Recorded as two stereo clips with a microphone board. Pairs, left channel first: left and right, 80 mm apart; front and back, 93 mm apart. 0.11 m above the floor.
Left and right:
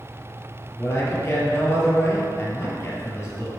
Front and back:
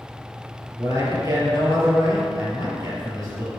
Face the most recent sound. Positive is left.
turn(degrees=140)